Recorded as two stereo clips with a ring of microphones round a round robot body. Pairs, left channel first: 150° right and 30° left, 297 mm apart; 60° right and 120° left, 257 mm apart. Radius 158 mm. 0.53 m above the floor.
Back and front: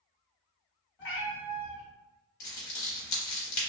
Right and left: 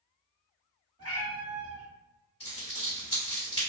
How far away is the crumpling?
About 1.0 m.